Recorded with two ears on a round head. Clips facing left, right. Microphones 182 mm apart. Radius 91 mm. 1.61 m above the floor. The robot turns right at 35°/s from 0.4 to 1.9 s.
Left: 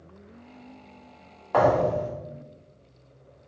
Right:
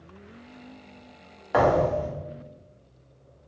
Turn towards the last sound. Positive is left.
turn(degrees=-15)  # may be behind; listen again after turning